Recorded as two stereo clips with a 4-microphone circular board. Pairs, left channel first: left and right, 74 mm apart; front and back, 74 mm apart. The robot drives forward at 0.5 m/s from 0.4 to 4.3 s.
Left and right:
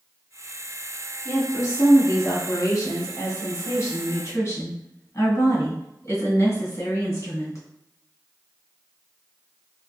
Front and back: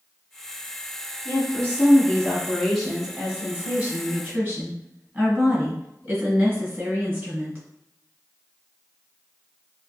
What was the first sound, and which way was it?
A woman speaking, 60° left.